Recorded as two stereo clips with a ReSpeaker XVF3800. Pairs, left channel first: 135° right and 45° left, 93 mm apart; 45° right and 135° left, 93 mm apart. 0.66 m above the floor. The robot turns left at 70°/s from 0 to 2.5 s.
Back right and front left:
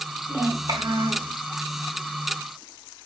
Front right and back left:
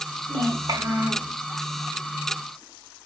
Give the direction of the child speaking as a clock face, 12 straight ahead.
8 o'clock.